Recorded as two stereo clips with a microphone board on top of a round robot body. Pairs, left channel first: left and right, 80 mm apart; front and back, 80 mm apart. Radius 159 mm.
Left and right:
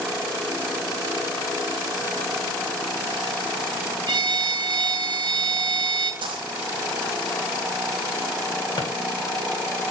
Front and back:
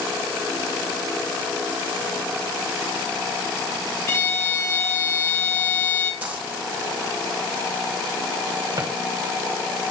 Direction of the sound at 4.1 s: 60° right.